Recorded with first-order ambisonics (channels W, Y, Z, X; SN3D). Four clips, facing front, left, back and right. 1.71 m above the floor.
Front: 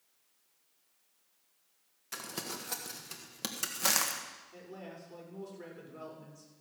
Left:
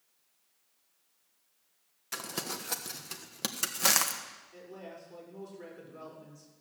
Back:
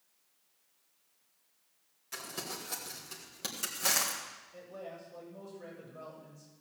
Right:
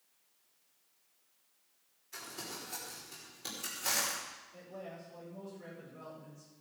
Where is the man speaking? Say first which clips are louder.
Left 2 dB, back 3 dB; 35° left, 6 m.